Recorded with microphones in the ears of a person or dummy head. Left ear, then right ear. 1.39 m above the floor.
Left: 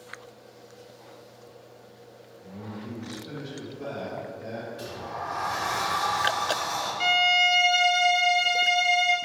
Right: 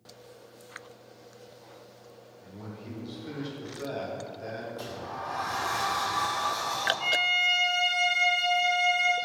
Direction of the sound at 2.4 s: 35° right (ahead or behind).